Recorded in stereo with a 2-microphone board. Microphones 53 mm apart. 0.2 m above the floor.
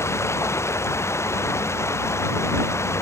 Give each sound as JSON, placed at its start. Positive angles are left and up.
{"t": 0.0, "sound": "running water", "side_deg": 55}